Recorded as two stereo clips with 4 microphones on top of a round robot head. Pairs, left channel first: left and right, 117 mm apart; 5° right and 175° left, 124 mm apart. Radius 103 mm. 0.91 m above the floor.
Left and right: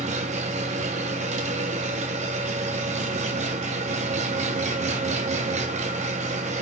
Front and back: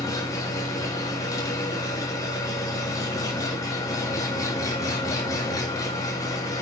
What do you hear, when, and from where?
0.0 s an engine running: 70° right, 1.8 m